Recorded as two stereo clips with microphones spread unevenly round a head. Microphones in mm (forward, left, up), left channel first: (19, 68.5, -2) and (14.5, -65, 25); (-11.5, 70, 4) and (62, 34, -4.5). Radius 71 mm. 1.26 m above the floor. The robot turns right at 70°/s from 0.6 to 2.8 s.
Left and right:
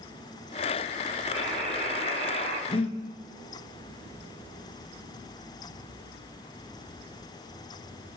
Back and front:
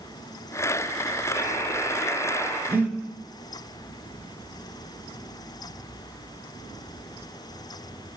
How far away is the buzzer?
About 3.5 m.